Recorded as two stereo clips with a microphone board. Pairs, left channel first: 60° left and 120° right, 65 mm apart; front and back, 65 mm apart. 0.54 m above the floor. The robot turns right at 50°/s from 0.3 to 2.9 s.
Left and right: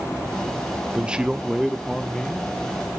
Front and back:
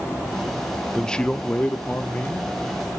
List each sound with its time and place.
0.9 s a man speaking: 70° right, 0.7 m; by 2.6 s 10° left, 0.7 m